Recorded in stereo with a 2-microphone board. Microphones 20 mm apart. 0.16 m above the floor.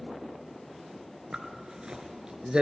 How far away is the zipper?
About 1.7 m.